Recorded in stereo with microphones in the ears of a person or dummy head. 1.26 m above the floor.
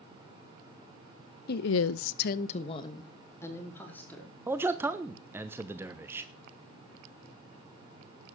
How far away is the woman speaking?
About 0.9 m.